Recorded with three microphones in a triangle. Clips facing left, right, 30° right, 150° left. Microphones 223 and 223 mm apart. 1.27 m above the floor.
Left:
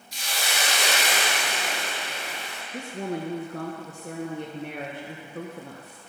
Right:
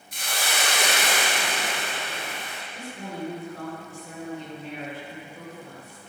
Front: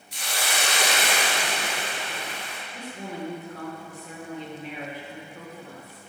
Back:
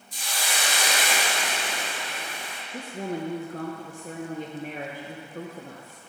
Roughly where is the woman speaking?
Behind left.